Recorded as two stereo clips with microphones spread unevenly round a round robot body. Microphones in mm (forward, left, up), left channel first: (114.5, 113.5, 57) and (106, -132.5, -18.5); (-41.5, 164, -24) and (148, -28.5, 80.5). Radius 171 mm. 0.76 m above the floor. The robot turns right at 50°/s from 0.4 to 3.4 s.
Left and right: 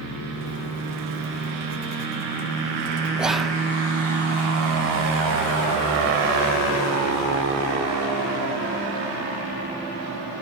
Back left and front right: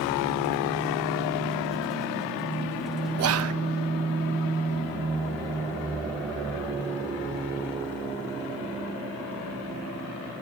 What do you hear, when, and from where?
3.2 s whispering: 50° right, 0.7 m; by 3.5 s 40° right, 0.7 m